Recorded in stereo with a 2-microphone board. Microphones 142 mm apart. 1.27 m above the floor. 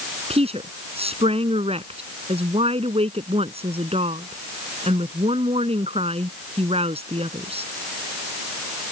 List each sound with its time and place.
0.3 s a woman speaking: 45° right (ahead or behind)